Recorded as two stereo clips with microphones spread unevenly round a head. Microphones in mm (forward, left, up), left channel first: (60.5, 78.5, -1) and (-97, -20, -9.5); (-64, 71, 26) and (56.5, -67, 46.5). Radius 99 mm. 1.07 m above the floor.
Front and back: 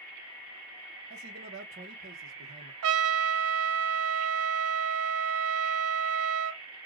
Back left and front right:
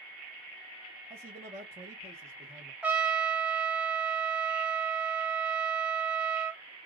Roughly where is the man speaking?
Behind right.